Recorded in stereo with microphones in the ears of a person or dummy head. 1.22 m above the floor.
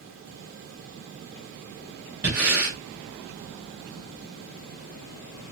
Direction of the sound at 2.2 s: 10° right (ahead or behind).